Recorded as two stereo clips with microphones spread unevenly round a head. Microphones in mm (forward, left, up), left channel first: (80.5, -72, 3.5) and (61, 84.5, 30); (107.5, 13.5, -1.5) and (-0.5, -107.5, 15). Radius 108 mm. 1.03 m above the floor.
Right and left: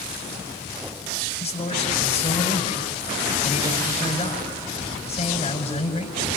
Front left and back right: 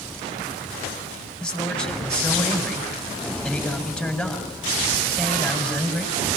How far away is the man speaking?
About 6.5 m.